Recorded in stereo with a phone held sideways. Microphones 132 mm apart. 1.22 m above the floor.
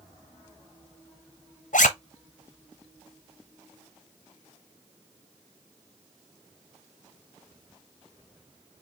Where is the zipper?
75° left (ahead or behind), 0.9 m.